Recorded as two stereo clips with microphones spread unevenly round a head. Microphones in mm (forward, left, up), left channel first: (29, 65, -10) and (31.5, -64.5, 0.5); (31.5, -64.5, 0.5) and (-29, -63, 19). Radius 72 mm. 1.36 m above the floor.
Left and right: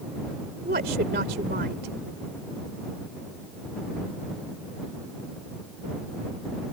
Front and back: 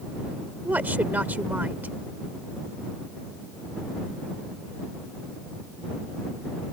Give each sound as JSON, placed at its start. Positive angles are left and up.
{"t": 0.7, "sound": "a woman speaking", "azimuth_deg": -120}